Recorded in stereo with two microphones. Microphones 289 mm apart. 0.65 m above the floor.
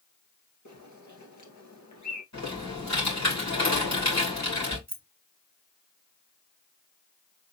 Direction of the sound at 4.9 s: 65° right (ahead or behind).